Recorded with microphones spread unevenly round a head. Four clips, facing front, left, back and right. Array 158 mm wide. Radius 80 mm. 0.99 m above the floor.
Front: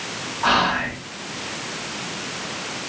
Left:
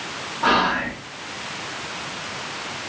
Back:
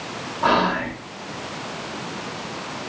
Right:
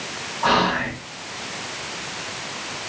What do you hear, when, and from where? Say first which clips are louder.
0.4 s whispering: even, back 1 dB; 170° left, 1.9 m